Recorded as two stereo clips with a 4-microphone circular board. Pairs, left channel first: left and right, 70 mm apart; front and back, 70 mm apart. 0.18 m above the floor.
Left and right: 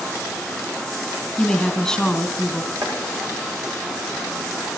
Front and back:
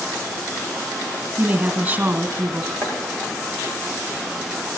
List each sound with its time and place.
1.4 s a woman speaking: 160° left, 1.5 m
2.8 s chopping: 50° right, 7 m